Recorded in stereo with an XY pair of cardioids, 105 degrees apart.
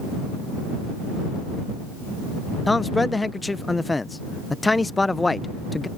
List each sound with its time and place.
2.7 s a man speaking: 15° left